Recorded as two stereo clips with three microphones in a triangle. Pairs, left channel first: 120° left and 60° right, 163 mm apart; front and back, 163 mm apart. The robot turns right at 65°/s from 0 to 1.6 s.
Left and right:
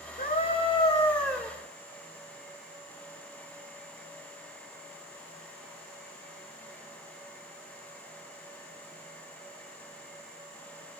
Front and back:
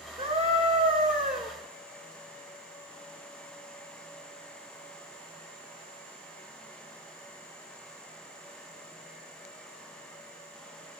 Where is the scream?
135° left, 1.9 m; by 1.5 s 140° right, 1.9 m.